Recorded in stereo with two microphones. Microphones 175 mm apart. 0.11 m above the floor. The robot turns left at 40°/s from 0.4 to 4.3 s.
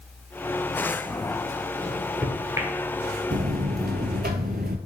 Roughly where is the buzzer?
Ahead right.